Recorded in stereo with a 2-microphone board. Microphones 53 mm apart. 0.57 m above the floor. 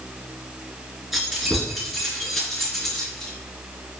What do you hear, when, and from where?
1.1 s keys jangling: 5° right (ahead or behind), 5 m; by 3.3 s 5° left (ahead or behind), 4 m